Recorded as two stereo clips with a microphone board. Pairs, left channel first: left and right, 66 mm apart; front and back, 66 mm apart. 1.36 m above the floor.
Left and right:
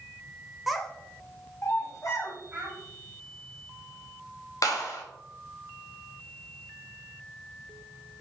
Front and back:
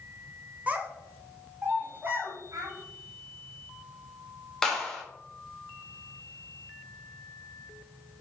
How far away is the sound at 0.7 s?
About 0.6 m.